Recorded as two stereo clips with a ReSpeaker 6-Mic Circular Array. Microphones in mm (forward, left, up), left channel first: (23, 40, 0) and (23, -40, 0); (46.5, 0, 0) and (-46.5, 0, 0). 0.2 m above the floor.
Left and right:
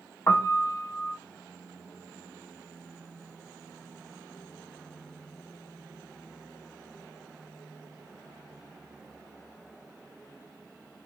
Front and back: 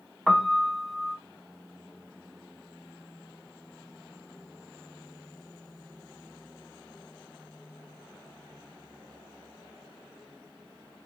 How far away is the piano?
About 0.5 m.